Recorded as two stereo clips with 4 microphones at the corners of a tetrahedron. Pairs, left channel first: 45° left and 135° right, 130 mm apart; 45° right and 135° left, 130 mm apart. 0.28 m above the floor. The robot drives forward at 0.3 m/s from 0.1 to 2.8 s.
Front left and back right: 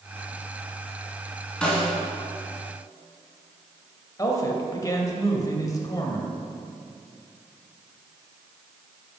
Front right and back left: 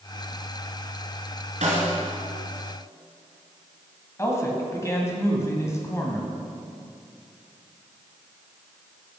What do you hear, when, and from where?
1.6 s a snare drum: 125° left, 2 m; by 1.9 s 130° left, 2 m
4.2 s a man speaking: 5° left, 1.6 m